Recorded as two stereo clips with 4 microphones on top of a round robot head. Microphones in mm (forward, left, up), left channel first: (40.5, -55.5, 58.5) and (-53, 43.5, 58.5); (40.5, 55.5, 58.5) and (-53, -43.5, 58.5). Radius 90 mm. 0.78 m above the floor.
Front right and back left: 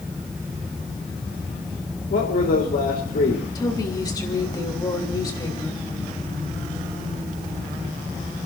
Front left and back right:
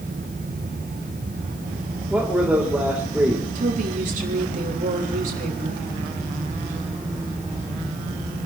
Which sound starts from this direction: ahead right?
A man speaking, at 2.1 s.